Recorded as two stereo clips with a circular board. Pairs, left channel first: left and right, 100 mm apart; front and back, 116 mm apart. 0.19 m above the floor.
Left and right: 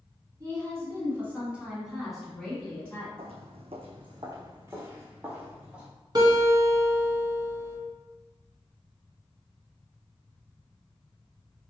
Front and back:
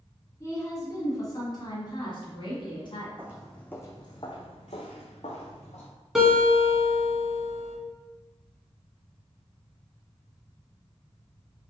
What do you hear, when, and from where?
0.4 s a woman speaking: 50° right, 1.9 m; by 3.1 s 20° left, 2 m
3.2 s footsteps: 105° right, 0.7 m; by 5.9 s 10° right, 1.8 m
6.2 s a guitar: 95° right, 1.2 m